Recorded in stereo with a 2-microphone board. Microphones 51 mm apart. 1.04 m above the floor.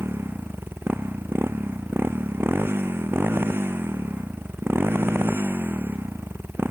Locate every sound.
0.0 s a motorcycle: 50° right (ahead or behind)